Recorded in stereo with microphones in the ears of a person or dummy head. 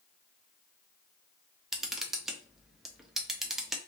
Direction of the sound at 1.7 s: 5° right (ahead or behind).